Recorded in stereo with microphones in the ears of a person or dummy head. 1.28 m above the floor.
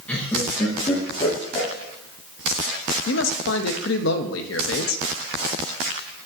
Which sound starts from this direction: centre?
Laughter, at 0.1 s.